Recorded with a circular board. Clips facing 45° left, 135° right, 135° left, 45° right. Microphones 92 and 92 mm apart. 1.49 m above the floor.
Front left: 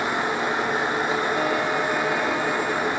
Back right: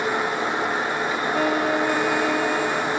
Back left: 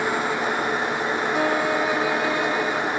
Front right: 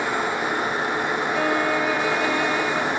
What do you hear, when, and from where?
1.3 s a violin: 160° right, 2.5 m